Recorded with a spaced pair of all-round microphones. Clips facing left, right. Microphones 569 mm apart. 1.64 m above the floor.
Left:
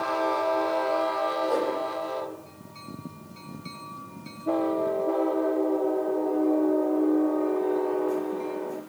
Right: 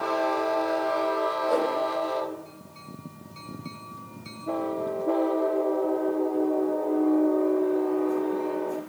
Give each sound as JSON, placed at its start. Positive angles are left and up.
{"t": 1.5, "sound": "a whoosh", "side_deg": -45, "distance_m": 9.0}